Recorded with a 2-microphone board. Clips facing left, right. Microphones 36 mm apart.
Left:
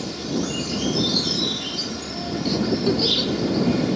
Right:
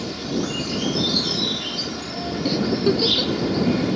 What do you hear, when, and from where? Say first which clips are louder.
0.0 s an insect: even; 10° right (ahead or behind)
2.5 s a giggle: right 1 dB; 15° right (ahead or behind)